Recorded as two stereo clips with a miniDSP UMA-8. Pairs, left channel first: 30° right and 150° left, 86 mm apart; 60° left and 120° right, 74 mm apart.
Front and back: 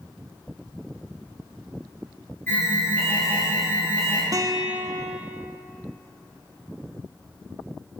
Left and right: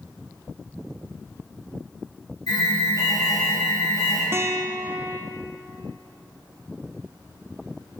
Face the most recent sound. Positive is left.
turn(degrees=-170)